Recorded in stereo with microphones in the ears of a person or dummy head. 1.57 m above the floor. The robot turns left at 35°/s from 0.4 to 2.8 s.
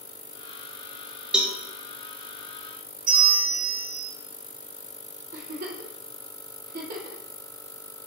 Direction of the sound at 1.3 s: 5° right (ahead or behind).